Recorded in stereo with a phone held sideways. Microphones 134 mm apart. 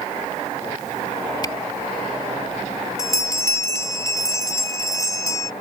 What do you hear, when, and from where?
1.4 s a camera shutter: 30° left (ahead or behind)
3.0 s a bell: 25° left (ahead or behind)